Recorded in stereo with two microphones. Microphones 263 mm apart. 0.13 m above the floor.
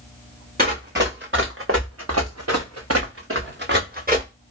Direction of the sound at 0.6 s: 35° right (ahead or behind).